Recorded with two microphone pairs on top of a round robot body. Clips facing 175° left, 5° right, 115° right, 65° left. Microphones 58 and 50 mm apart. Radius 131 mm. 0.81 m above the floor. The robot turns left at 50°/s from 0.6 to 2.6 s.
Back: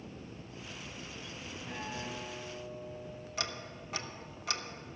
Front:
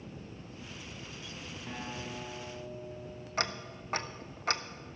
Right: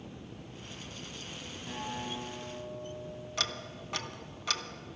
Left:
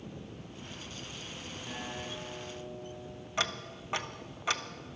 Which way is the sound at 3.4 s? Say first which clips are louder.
Front 6 dB, left 3 dB; straight ahead.